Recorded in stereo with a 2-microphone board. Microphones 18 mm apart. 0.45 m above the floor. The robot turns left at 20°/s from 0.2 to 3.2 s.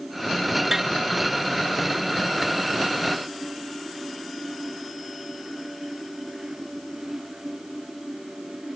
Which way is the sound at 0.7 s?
25° right (ahead or behind).